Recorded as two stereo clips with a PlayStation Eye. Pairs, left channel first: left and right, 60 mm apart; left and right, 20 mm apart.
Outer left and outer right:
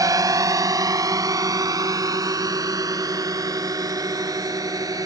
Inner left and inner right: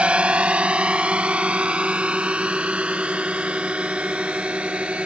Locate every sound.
0.0 s a drone: 70° right (ahead or behind); by 5.1 s 80° right